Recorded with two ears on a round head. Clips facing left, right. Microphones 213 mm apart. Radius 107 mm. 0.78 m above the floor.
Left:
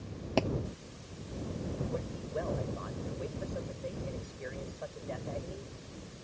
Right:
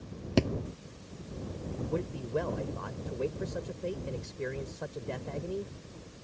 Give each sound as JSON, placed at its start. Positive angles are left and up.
{"t": 0.4, "sound": "a thud", "side_deg": -25}
{"t": 1.9, "sound": "a man speaking", "side_deg": -65}